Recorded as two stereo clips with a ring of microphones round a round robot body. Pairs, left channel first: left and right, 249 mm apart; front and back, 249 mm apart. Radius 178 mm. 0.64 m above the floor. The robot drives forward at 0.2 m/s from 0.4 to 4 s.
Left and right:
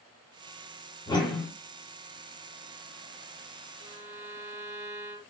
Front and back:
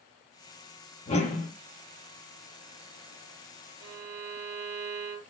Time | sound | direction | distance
1.1 | a whoosh | 35° left | 1.0 m
3.8 | a violin | 175° right | 1.0 m